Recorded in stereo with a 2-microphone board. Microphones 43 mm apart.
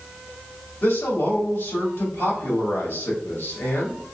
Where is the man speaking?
65° left (ahead or behind), 2 m.